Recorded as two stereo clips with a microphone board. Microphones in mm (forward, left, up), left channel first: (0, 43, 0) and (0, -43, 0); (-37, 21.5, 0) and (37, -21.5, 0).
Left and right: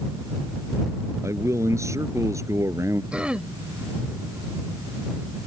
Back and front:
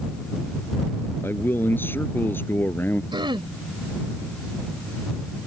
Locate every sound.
1.2 s a man speaking: 145° right
3.1 s throat clearing: 10° right